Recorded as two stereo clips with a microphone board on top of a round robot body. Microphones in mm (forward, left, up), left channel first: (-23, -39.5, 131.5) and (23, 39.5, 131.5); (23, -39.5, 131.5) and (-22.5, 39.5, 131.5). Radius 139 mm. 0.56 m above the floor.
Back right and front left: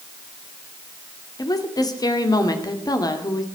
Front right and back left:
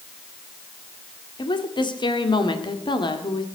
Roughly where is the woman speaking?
Right.